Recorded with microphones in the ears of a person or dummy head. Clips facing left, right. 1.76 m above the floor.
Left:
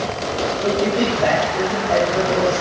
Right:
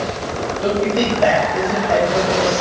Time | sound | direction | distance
0.6 | a man speaking | 60° right (ahead or behind) | 9 m